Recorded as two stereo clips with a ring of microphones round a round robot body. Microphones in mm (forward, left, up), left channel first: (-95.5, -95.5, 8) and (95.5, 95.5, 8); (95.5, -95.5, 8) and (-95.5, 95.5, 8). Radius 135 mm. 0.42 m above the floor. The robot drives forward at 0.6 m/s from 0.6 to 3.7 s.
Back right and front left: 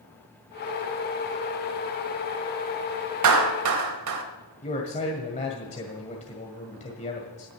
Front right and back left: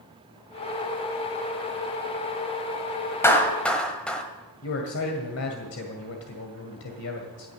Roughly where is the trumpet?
No trumpet in this recording.